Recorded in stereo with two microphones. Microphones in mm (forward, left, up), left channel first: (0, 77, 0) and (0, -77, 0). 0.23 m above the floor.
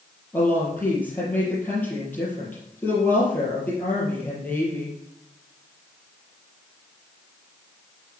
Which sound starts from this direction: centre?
A woman speaking, at 0.3 s.